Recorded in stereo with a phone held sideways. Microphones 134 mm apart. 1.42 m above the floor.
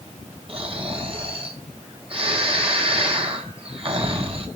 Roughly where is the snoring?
Right.